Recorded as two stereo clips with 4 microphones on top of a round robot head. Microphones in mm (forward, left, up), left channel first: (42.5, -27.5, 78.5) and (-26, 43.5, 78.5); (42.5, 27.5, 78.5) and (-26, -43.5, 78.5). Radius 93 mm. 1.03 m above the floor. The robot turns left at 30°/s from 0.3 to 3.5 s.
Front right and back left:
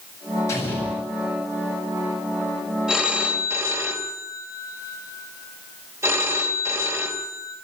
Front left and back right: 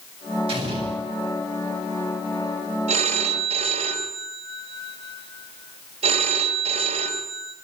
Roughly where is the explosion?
Right.